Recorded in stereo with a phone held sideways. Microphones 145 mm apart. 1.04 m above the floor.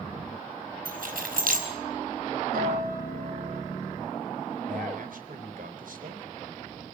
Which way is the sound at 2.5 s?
80° right.